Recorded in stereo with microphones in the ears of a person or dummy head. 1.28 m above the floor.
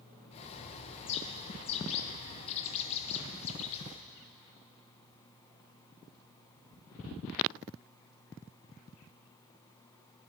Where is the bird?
30° left (ahead or behind), 0.6 m.